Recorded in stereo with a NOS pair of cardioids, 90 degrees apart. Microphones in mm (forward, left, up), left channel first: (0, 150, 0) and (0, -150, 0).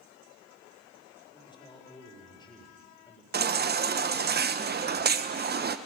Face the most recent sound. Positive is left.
turn(degrees=-35)